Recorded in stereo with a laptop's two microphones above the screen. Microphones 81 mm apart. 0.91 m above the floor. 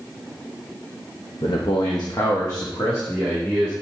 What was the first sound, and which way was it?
A man speaking, 70° left (ahead or behind).